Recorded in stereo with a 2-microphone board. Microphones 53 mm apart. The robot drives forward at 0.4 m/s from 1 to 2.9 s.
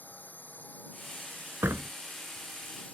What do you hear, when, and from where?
0.0 s a drone: 30° left (ahead or behind); by 3.0 s 25° left (ahead or behind)
1.6 s a door slam: 50° right (ahead or behind)